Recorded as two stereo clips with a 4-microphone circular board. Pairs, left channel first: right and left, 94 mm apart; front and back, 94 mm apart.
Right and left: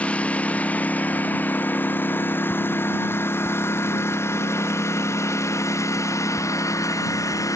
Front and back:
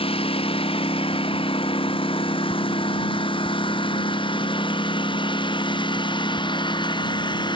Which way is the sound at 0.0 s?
15° right.